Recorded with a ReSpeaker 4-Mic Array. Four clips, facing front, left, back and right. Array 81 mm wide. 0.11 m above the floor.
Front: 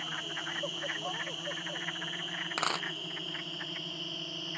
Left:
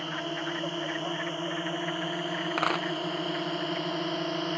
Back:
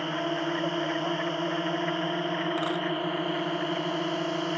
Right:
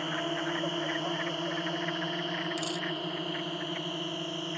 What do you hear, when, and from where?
0.0 s a drone: 175° right; by 4.6 s 155° left
2.6 s a dropped coin: 75° left